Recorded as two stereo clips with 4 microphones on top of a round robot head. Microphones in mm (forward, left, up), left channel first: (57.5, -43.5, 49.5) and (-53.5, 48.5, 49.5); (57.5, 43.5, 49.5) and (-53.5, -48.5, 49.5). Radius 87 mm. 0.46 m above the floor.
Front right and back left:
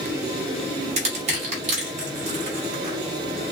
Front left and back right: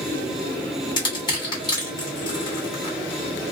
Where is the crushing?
100° left, 3 m.